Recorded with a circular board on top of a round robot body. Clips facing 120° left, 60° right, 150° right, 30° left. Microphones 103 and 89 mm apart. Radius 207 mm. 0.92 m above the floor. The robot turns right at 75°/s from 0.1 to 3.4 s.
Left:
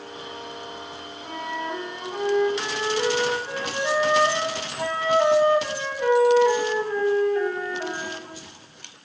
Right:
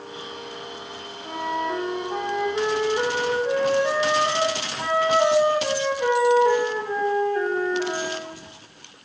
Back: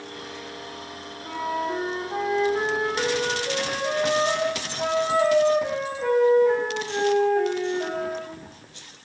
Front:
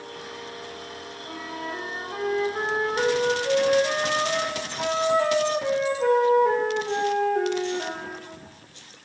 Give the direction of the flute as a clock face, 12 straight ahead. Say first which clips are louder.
Right 4 dB, back 8 dB; 5 o'clock.